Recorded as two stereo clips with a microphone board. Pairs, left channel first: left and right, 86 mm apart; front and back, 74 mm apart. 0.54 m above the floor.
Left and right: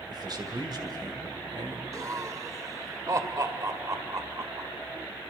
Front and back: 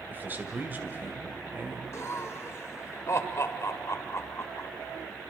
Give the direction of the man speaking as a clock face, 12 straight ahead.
4 o'clock.